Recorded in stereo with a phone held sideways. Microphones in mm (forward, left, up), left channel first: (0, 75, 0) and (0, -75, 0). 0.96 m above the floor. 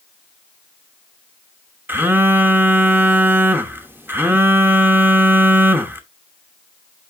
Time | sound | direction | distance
1.9 | a phone buzzing | 15° right (ahead or behind) | 0.9 m